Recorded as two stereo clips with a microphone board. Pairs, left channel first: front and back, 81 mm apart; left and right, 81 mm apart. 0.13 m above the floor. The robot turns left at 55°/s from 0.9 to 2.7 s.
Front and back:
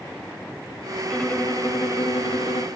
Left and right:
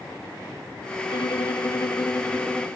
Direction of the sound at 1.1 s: 85° left.